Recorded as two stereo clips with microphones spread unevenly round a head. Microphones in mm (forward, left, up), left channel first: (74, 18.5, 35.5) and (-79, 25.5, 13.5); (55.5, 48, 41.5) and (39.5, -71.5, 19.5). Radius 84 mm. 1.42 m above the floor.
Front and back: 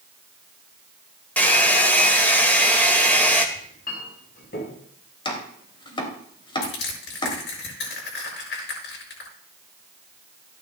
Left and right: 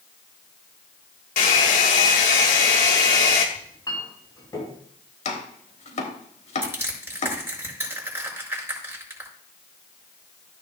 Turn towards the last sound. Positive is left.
turn(degrees=-30)